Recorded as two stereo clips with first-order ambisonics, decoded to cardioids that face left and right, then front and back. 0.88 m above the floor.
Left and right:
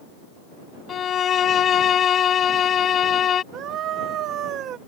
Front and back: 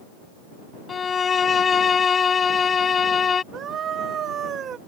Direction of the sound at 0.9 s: 55° left.